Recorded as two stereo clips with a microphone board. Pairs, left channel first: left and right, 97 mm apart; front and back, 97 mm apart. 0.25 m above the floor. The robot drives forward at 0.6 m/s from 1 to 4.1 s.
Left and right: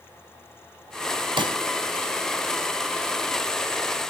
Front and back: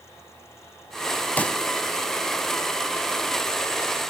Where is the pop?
70° right, 0.6 m; by 1.6 s 85° right, 0.6 m.